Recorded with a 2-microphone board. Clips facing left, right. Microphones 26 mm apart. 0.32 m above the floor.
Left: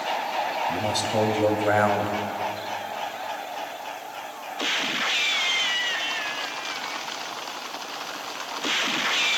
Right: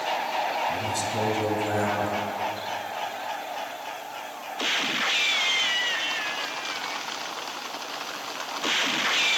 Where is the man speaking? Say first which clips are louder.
Left 3 dB; 45° left (ahead or behind), 1.8 m.